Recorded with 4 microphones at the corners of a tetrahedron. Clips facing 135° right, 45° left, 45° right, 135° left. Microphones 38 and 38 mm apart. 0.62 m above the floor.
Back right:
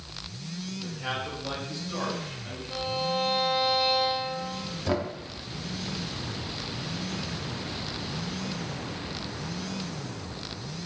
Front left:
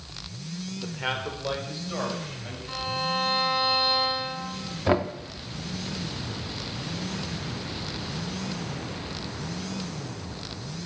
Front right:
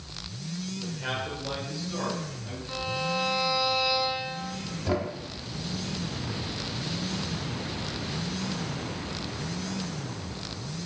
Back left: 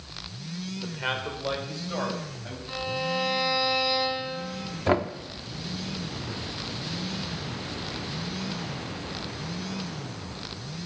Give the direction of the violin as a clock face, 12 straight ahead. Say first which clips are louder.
Front left 1 dB, back left 1 dB; 10 o'clock.